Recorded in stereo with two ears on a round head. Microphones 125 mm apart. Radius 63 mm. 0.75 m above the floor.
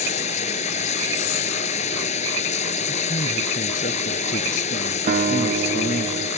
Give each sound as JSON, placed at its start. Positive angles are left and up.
{"t": 0.0, "sound": "running water", "side_deg": 50}
{"t": 2.9, "sound": "a man speaking", "side_deg": 65}
{"t": 5.1, "sound": "a guitar", "side_deg": -55}